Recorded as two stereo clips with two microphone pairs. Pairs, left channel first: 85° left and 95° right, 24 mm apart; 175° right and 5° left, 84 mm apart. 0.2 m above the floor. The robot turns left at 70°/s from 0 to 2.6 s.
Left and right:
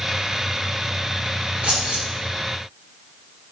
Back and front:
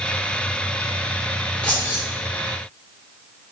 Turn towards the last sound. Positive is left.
turn(degrees=-170)